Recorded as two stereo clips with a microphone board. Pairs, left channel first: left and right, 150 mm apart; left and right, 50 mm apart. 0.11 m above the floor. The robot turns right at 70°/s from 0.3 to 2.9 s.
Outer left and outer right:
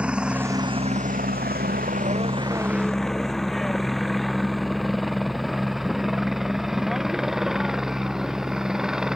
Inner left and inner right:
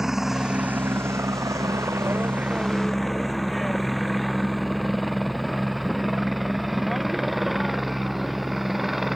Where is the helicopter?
5° right (ahead or behind).